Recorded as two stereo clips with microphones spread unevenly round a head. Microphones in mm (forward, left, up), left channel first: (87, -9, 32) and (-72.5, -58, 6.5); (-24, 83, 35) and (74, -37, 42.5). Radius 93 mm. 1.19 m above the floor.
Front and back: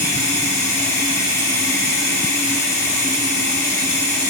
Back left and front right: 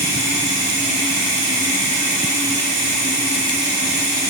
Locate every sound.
0.0 s running water: 55° right, 2.5 m